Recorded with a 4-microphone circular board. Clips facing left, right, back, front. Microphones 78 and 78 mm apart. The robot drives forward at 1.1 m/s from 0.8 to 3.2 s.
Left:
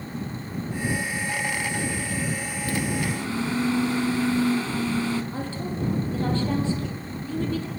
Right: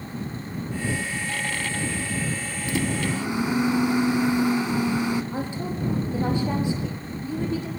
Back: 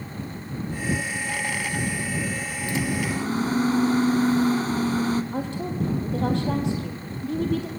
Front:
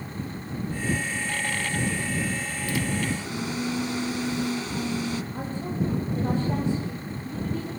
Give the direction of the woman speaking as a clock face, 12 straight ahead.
5 o'clock.